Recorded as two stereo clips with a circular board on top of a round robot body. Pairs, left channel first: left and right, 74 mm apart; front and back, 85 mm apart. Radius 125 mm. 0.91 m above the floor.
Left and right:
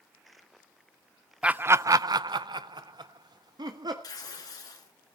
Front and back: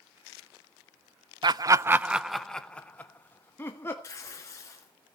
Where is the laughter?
160° right, 0.6 m; by 3.9 s 65° right, 1.7 m.